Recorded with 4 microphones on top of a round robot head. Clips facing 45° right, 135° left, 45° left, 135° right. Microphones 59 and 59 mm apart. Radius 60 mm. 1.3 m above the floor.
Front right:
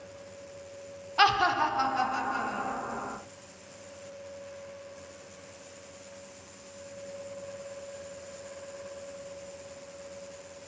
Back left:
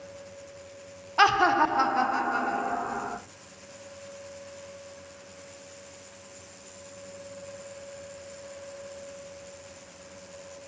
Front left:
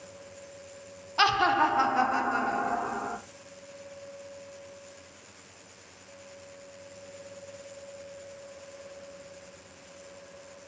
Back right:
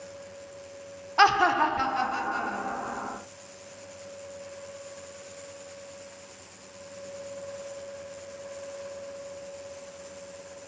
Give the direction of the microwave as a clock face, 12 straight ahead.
I don't hear a microwave.